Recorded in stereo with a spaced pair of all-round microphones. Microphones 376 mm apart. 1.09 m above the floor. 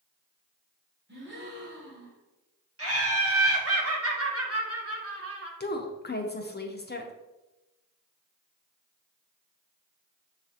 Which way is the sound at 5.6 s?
30° left (ahead or behind).